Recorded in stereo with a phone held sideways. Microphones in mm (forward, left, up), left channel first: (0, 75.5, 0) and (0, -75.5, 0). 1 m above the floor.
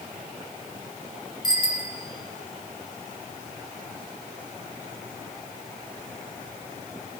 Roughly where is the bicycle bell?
Left.